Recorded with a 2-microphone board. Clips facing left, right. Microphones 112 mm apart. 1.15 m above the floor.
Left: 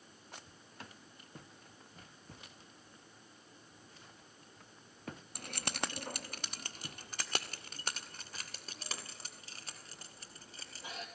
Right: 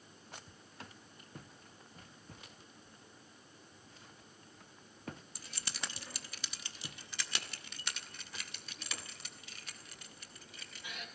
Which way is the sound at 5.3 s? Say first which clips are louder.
Left 7 dB; 60° left (ahead or behind).